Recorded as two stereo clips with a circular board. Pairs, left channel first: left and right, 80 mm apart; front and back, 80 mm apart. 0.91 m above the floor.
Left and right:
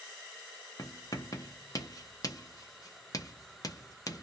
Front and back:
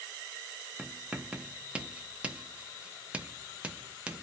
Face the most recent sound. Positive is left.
turn(degrees=110)